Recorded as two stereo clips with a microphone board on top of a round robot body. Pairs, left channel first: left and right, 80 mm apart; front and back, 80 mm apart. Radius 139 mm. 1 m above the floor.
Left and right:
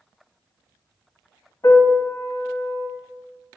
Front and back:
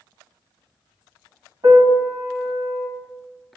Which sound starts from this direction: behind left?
A piano, at 1.6 s.